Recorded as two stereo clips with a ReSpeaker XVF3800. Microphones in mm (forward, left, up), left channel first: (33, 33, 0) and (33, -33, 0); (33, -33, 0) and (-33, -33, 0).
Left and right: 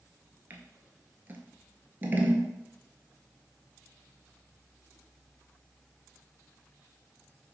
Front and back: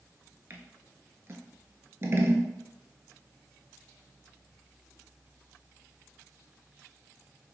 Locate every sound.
0.5 s scissors: 140° right, 0.6 m